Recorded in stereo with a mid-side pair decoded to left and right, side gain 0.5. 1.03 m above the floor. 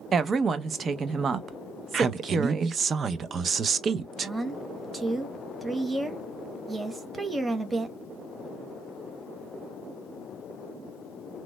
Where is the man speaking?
45° right, 0.5 m.